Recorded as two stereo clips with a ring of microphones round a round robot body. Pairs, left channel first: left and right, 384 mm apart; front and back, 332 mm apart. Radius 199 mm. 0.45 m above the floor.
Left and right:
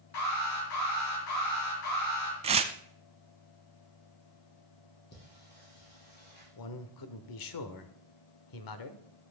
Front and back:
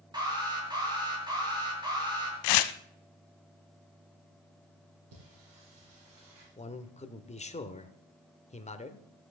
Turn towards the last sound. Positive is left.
turn(degrees=70)